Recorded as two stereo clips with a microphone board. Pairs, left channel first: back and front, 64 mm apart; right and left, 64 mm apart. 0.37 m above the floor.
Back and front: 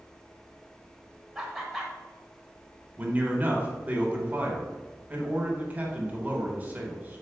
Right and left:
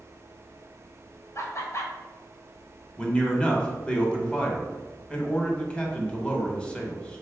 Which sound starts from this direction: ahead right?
A man speaking, at 3.0 s.